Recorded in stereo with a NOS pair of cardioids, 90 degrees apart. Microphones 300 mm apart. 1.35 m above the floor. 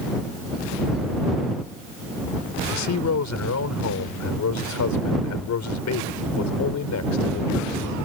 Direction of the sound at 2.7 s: 65° left.